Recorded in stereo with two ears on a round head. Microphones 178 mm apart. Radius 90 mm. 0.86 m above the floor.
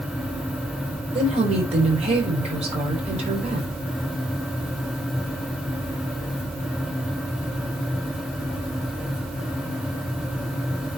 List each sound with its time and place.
1.1 s a woman speaking: 35° right (ahead or behind), 4 m